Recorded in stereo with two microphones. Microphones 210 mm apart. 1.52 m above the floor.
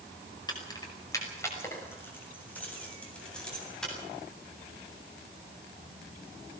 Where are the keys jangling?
20° left (ahead or behind), 5.5 m; by 3.9 s centre (ahead or behind), 8.5 m.